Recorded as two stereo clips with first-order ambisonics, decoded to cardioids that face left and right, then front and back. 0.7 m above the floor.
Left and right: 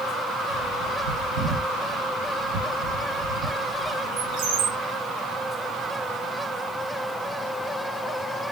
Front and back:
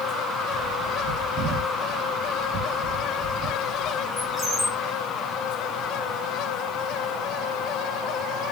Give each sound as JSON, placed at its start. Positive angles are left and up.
{"t": 0.5, "sound": "a bird", "azimuth_deg": -90, "distance_m": 2.5}